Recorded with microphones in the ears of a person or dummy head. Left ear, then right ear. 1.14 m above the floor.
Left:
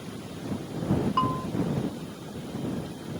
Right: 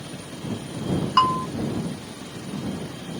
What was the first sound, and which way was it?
A bell, 50° right (ahead or behind).